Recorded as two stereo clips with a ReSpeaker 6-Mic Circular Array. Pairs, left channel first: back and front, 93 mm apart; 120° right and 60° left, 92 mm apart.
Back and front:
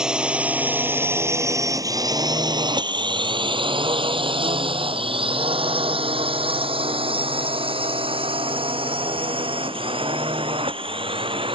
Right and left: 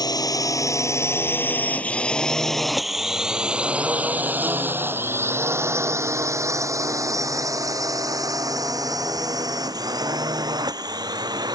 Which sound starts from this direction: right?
A drone, at 0.0 s.